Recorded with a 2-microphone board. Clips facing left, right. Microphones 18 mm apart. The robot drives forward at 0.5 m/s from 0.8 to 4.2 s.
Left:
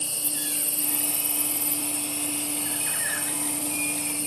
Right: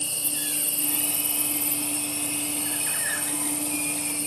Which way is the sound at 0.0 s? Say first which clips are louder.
Right 1 dB; 15° right (ahead or behind).